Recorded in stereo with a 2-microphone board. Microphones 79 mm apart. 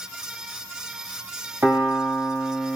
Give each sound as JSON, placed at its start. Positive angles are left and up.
{"t": 1.6, "sound": "a piano", "side_deg": -35, "distance_m": 7.5}